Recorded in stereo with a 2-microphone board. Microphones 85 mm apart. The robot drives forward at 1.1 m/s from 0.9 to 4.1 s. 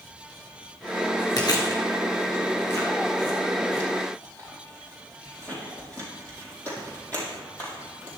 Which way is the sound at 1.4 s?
50° left (ahead or behind).